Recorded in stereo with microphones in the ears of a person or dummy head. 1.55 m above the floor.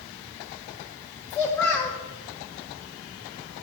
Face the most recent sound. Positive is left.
turn(degrees=10)  # may be behind; listen again after turning